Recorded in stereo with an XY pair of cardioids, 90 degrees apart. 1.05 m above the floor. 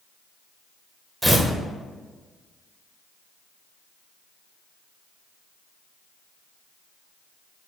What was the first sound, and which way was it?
Tearing paper, 5° right.